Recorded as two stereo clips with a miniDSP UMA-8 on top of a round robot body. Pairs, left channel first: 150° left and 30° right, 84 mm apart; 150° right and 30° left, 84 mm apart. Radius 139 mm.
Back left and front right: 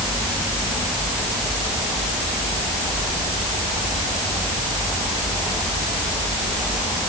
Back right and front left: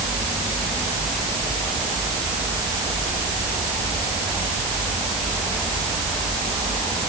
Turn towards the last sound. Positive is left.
No sound to turn to.